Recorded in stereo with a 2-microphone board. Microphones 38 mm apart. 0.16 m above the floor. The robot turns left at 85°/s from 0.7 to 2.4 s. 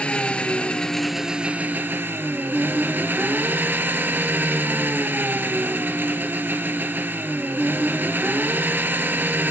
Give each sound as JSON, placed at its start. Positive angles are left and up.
{"t": 0.0, "sound": "an engine running", "azimuth_deg": 35, "distance_m": 0.8}